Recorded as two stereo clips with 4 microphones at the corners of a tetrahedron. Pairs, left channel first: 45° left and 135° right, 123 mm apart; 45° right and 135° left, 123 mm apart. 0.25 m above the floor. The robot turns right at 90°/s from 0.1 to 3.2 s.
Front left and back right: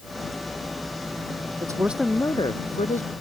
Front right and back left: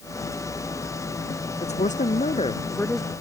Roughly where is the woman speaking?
Right.